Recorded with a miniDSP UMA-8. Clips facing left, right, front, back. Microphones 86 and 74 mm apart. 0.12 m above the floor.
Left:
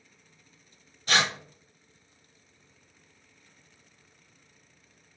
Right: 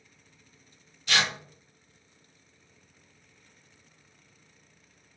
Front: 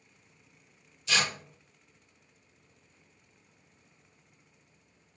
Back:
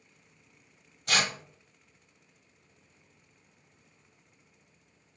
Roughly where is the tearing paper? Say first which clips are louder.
Left 2 dB, back 1 dB; behind left.